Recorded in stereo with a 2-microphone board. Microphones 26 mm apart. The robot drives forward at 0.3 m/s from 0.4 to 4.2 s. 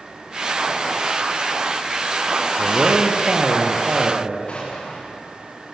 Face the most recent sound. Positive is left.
turn(degrees=45)  # may be behind; listen again after turning